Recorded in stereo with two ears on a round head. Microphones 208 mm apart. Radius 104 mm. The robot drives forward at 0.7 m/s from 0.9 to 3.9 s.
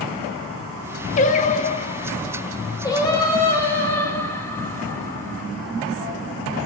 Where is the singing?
30° left (ahead or behind), 0.7 m; by 5.5 s 10° left (ahead or behind), 1.9 m.